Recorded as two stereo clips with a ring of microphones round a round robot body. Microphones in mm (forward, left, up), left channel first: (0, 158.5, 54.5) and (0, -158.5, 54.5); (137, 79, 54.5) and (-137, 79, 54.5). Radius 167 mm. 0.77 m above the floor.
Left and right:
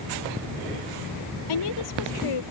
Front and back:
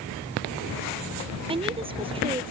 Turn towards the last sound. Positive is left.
turn(degrees=110)